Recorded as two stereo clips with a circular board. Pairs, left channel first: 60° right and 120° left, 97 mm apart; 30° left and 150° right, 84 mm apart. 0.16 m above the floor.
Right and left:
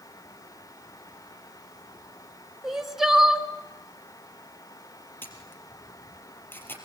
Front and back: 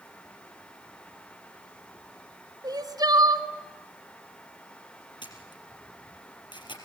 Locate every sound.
2.6 s crying: 155° right, 1.4 m
5.2 s a camera shutter: 10° left, 4 m